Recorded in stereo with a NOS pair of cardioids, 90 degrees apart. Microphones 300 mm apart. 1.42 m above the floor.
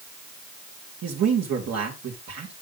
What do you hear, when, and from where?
1.0 s a man speaking: 55° right, 2.5 m